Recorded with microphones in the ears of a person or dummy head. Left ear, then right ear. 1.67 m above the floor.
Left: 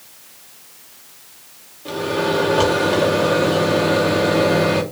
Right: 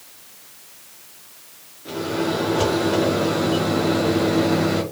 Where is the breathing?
No breathing in this recording.